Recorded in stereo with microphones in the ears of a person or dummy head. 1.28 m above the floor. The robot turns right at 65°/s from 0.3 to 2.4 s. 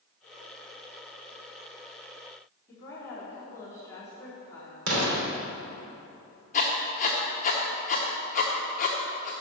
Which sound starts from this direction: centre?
A woman speaking, at 2.7 s.